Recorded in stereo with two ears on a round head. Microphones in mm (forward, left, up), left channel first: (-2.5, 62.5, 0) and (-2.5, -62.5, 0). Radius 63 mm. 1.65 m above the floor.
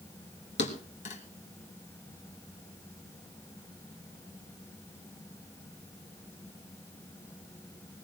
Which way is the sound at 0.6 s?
50° left (ahead or behind).